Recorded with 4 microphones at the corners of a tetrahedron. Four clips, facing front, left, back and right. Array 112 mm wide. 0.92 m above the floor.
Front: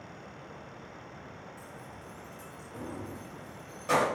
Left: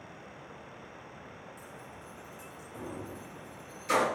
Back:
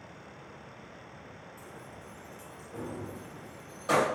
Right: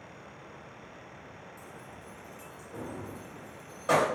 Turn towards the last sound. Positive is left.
turn(degrees=-100)